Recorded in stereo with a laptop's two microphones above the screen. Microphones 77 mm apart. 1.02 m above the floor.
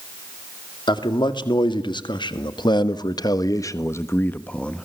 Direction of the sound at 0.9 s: 75° left (ahead or behind).